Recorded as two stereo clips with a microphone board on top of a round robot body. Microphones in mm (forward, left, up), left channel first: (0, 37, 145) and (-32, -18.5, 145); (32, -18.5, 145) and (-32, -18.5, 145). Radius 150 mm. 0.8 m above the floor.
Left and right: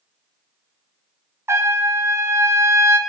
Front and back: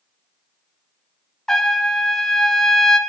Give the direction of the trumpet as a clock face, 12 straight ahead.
3 o'clock.